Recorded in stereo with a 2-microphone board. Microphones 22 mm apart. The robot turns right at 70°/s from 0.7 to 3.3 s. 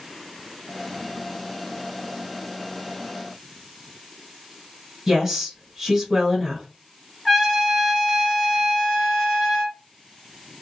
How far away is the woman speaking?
About 1.9 m.